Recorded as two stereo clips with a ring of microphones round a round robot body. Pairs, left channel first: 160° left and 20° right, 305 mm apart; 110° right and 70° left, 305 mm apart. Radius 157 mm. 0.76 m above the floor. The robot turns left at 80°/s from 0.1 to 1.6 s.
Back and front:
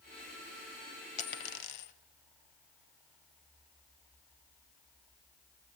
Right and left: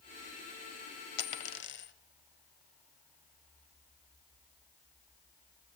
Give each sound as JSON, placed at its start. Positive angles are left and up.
{"t": 1.2, "sound": "a dropped coin", "azimuth_deg": -135, "distance_m": 1.2}